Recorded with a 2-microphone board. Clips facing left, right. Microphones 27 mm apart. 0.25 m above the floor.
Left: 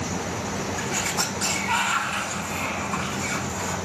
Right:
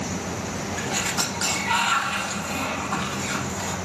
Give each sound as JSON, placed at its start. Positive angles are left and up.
{"t": 0.8, "sound": "a sliding door", "side_deg": -80, "distance_m": 3.0}